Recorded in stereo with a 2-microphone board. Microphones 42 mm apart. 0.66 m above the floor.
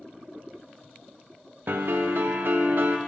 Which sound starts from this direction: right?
A piano, at 1.7 s.